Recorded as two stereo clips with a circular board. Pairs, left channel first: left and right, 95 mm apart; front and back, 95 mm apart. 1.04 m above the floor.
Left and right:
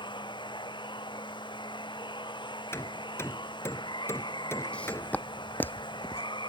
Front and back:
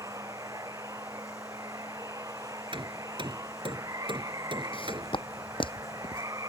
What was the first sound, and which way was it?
Running water, 125° left.